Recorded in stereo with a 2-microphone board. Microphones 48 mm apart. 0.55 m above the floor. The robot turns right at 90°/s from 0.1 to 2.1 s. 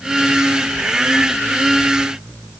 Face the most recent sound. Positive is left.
No sound to turn to.